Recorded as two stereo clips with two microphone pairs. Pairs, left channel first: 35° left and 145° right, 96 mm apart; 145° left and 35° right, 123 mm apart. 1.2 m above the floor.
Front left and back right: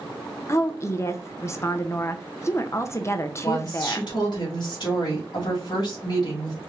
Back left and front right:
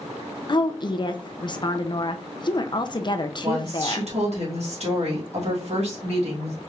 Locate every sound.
0.5 s a woman speaking: 95° left, 0.6 m
3.4 s a woman speaking: 5° right, 1.9 m